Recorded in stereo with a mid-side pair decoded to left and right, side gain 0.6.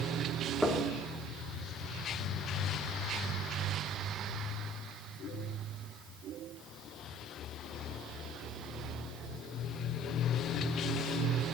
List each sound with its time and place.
0.6 s knocking: straight ahead, 3 m